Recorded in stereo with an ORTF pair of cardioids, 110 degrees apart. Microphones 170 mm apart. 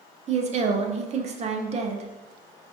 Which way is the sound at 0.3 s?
40° right.